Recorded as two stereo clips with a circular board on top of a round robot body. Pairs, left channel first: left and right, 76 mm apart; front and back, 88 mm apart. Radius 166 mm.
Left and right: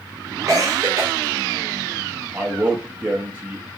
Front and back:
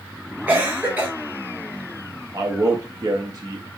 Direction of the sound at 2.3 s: 155° right.